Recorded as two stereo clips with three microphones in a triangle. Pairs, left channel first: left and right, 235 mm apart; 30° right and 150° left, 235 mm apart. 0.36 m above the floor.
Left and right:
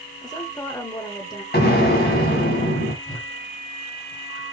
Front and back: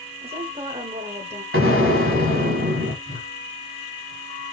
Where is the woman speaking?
140° left, 1.0 m.